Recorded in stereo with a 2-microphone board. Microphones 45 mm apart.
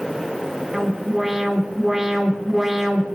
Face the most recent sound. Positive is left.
turn(degrees=-5)  # may be behind; listen again after turning